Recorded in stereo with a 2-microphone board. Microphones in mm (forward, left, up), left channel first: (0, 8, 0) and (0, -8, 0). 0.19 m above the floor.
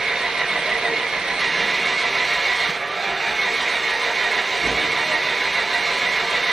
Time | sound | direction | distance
0.0 | an engine running | 45° right (ahead or behind) | 0.8 m